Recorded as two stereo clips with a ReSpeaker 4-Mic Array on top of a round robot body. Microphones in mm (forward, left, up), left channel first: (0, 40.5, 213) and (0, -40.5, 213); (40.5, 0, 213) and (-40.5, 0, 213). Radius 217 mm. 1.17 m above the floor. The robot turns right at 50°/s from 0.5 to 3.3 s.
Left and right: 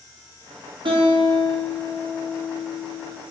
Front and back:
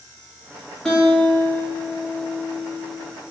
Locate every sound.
0.8 s a guitar: 85° right, 1.0 m; by 3.1 s 30° left, 1.0 m